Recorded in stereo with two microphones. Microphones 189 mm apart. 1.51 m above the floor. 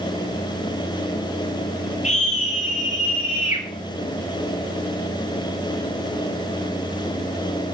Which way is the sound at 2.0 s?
40° left (ahead or behind).